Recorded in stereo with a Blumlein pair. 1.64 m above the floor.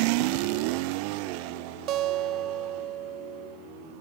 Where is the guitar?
35° right, 0.6 m.